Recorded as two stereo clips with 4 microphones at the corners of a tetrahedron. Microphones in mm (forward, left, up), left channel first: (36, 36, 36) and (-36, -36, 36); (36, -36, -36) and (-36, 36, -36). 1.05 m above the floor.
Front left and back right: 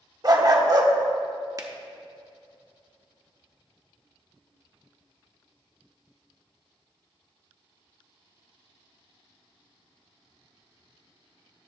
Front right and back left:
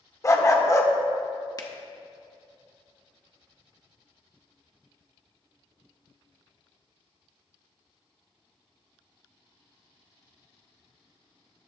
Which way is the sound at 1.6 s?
85° right.